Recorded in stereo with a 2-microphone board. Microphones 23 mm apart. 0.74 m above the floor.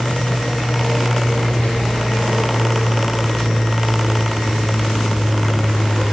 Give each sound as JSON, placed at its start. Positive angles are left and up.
{"t": 0.0, "sound": "an aircraft", "side_deg": 60}